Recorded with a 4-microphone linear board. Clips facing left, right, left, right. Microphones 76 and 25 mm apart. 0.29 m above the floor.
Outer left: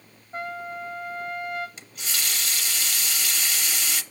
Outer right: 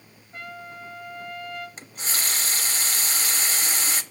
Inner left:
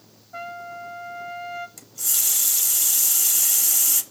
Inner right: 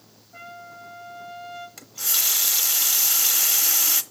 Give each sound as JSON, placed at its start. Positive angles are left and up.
{"t": 0.3, "sound": "a trumpet", "side_deg": 35, "distance_m": 2.0}
{"t": 1.8, "sound": "a running tap", "side_deg": -35, "distance_m": 0.7}